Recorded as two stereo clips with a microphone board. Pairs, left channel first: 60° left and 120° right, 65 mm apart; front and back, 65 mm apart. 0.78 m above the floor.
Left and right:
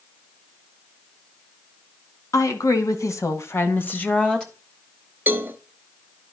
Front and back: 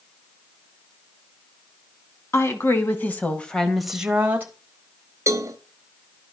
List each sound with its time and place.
2.3 s a woman speaking: 35° left, 1.5 m; by 4.5 s 140° left, 1.0 m
5.3 s a cowbell: 175° right, 0.6 m